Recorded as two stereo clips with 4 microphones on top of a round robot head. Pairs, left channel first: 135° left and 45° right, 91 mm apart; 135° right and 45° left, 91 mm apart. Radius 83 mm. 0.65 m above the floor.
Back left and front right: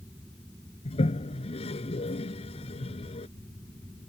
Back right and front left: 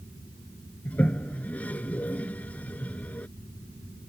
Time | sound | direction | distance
0.8 | a toilet flushing | 150° left | ?